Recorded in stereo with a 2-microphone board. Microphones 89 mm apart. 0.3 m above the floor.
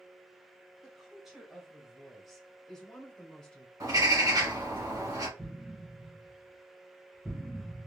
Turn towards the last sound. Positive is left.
turn(degrees=5)  # may be behind; listen again after turning